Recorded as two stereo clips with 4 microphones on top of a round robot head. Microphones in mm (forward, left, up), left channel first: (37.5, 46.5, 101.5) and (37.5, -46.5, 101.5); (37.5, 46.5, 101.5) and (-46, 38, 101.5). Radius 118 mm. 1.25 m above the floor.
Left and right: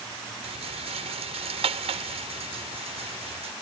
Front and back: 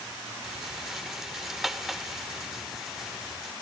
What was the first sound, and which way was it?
A rattle, 85° right.